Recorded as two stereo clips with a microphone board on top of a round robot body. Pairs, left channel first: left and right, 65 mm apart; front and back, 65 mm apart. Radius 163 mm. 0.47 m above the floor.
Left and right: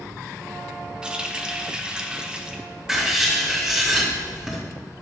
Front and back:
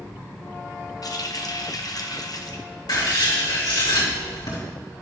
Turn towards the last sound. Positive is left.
turn(degrees=-10)